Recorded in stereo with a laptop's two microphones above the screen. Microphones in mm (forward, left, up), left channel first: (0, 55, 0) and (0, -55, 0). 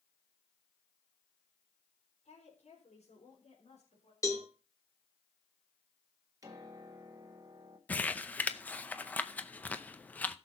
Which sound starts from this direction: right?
A piano, at 6.4 s.